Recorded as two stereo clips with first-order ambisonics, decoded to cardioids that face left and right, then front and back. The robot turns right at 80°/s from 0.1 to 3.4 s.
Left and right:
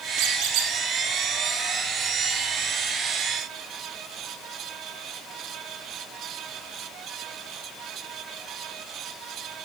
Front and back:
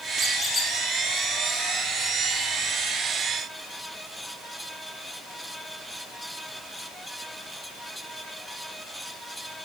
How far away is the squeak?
About 3.5 m.